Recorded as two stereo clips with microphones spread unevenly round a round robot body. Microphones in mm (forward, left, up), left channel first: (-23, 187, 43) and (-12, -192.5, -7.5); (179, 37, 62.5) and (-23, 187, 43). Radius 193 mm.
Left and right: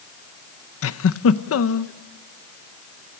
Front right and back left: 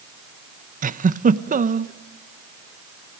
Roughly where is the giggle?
Behind left.